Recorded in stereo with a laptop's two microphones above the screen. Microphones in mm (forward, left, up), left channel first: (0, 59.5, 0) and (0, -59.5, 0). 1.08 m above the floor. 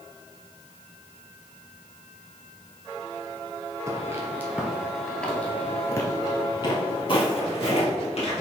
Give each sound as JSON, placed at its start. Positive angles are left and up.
{"t": 3.9, "sound": "footsteps", "side_deg": -30, "distance_m": 1.2}